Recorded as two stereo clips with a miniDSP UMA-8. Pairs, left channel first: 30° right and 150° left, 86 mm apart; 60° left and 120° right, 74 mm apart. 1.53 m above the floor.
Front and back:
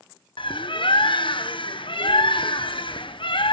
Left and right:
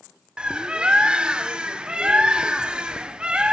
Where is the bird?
45° right, 1.0 m.